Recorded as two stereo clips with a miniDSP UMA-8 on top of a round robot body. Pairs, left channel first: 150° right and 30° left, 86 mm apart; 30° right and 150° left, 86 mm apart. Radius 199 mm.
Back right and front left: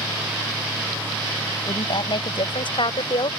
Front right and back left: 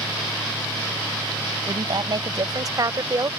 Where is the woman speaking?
175° right; by 3.3 s 160° right.